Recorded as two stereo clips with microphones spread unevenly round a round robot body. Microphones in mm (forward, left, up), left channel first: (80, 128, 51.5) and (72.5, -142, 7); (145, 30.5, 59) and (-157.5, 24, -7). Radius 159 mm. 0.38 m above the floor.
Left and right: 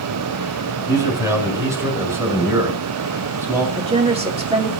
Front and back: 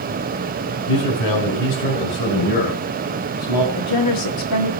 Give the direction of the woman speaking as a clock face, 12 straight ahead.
1 o'clock.